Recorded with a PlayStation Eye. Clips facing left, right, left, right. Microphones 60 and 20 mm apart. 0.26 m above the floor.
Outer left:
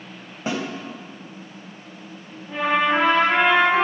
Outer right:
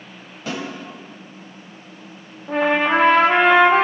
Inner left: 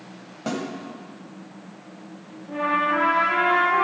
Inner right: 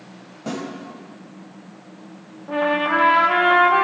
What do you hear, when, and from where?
0.5 s a snare drum: 25° left (ahead or behind), 1.7 m
2.5 s a trumpet: 60° right (ahead or behind), 1.4 m